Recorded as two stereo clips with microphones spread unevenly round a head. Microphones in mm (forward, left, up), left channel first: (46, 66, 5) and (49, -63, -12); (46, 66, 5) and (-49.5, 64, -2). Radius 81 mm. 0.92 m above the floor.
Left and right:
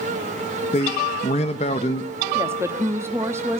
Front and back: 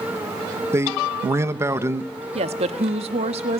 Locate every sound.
0.7 s a man speaking: 135° left, 1.1 m
2.4 s a woman speaking: 160° right, 1.3 m